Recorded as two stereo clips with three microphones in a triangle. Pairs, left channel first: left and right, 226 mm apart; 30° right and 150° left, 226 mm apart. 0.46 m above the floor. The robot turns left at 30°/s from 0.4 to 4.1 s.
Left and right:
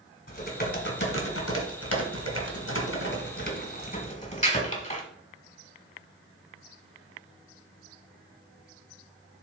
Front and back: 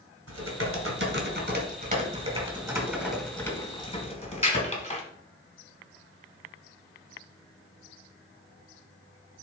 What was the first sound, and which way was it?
Typing on a keyboard, 145° left.